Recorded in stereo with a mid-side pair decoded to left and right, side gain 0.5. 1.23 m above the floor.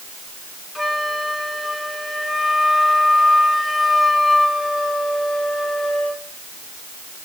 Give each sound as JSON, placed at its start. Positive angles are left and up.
{"t": 0.8, "sound": "a flute", "azimuth_deg": 20, "distance_m": 3.0}